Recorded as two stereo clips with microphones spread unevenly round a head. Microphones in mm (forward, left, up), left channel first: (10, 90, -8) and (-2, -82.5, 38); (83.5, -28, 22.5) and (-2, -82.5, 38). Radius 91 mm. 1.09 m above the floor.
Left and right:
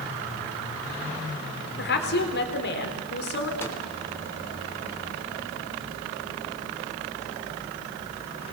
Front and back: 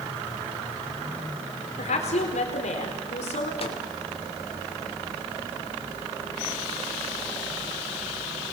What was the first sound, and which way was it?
A woman speaking, 60° left.